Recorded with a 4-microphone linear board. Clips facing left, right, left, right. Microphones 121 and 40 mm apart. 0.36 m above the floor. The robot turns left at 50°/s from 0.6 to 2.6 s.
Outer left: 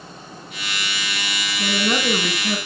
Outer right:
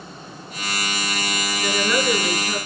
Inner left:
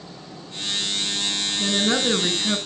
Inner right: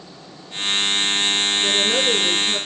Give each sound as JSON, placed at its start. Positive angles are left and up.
{"t": 1.6, "sound": "a woman speaking", "azimuth_deg": 140, "distance_m": 3.5}